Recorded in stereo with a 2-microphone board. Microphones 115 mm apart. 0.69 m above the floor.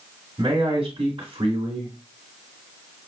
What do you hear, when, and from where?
0.4 s a man speaking: 50° right (ahead or behind), 1.7 m